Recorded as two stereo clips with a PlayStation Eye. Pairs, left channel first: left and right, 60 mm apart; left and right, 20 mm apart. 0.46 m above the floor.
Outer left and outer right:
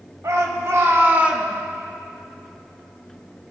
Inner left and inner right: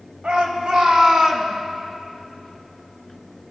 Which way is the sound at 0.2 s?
65° right (ahead or behind).